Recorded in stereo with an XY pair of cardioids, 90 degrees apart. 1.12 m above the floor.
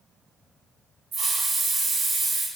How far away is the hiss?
About 0.8 m.